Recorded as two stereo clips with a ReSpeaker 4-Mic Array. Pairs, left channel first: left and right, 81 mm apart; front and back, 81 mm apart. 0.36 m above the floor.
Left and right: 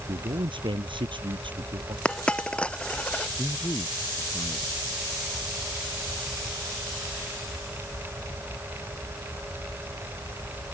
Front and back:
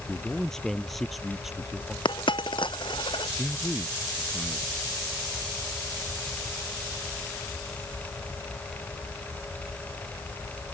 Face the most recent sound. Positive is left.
turn(degrees=60)